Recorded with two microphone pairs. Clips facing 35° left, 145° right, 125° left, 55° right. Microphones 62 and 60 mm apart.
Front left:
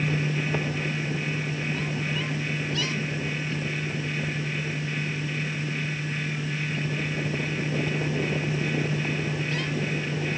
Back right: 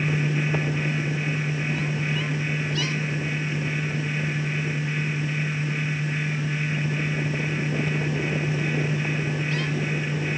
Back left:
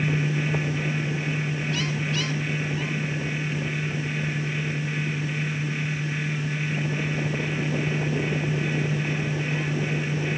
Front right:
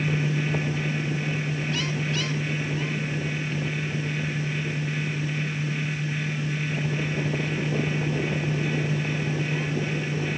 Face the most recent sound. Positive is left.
No sound to turn to.